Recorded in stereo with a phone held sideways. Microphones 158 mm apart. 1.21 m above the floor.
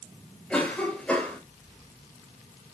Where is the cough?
5° left (ahead or behind), 5.5 m.